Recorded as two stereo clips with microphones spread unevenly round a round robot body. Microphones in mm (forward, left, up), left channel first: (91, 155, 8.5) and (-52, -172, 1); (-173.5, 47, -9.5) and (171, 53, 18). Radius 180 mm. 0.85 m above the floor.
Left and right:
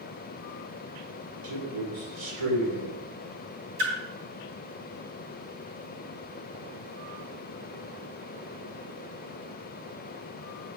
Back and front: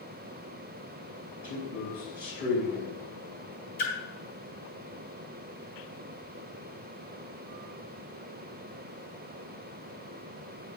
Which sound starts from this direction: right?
A man speaking, at 1.4 s.